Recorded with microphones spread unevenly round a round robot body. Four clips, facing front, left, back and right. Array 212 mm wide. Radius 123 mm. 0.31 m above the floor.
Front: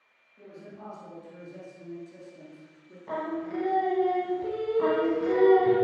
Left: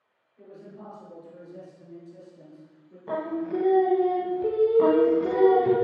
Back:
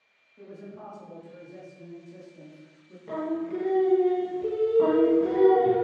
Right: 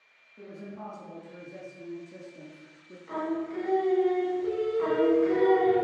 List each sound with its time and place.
0.4 s a man speaking: 100° right, 6 m; by 3.0 s 75° right, 5 m
3.1 s singing: 95° left, 1.6 m
4.8 s singing: 115° left, 1.5 m